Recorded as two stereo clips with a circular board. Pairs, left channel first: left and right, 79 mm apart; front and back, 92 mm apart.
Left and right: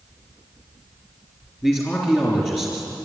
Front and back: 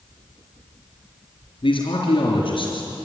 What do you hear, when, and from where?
1.6 s a man speaking: 20° left, 3 m